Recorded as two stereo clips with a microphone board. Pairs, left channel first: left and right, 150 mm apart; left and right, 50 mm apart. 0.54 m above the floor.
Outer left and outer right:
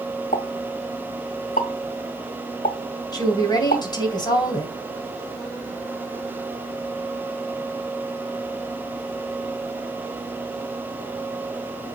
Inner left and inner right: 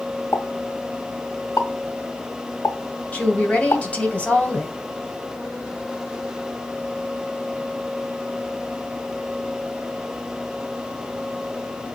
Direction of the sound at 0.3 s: 70° left (ahead or behind).